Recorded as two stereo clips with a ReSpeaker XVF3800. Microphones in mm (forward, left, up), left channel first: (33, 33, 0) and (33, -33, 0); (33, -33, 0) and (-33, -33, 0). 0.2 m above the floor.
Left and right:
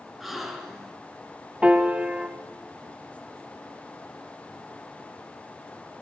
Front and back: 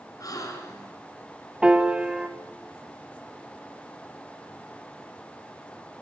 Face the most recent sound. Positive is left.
turn(degrees=-130)